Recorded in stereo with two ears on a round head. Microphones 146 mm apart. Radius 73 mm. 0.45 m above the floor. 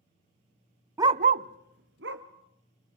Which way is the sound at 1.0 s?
15° right (ahead or behind).